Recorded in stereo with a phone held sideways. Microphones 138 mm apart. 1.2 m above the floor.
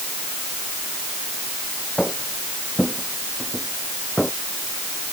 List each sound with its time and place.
2.0 s footsteps: 5° left (ahead or behind); by 4.3 s centre (ahead or behind)